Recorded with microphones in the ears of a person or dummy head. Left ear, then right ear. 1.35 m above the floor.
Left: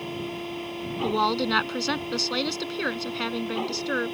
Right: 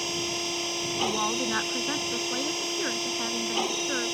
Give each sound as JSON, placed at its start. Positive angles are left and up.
{"t": 0.0, "sound": "a machine running", "side_deg": -85}
{"t": 1.0, "sound": "a woman speaking", "side_deg": 80}